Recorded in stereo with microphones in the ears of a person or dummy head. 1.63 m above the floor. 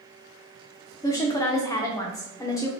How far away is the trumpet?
I don't hear a trumpet.